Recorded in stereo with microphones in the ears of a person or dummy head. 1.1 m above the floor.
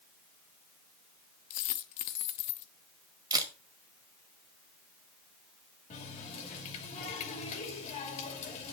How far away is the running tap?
About 2.5 m.